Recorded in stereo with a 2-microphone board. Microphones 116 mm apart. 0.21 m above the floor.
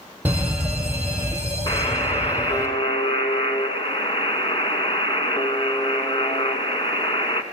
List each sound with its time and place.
0.2 s an alarm: 15° right (ahead or behind), 4 m
1.7 s a buzzer: 45° left (ahead or behind), 2 m